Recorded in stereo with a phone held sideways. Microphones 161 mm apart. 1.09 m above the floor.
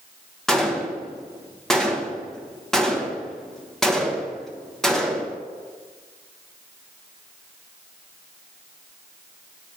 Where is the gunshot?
5° left (ahead or behind), 1.1 m.